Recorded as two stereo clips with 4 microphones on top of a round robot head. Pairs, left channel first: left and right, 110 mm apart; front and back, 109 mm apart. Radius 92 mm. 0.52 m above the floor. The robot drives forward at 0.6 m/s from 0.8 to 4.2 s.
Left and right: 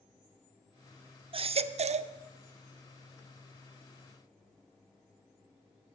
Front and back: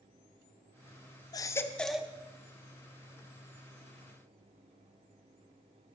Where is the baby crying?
55° right, 0.7 m; by 2.1 s 100° right, 0.6 m.